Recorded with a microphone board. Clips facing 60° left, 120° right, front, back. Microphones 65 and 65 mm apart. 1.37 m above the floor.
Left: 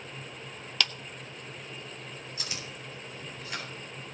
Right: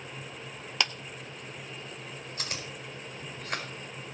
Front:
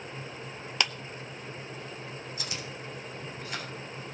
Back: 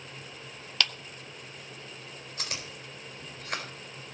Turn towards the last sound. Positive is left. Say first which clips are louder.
# right 3 dB, front 2 dB
turn(degrees=-155)